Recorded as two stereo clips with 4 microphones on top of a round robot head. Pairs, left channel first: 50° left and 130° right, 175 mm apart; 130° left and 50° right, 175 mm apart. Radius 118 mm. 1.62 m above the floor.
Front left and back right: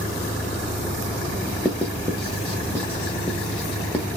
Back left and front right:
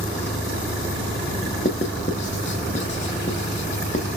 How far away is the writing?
About 0.8 m.